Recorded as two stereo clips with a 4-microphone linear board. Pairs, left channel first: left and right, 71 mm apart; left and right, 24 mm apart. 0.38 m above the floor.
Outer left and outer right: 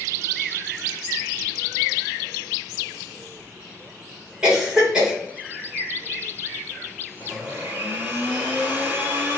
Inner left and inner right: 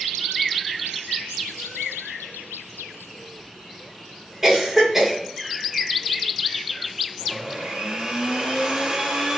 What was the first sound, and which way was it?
A cough, 10° right (ahead or behind).